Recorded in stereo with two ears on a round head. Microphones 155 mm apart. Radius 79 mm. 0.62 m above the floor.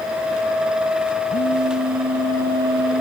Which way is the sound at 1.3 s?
55° right (ahead or behind).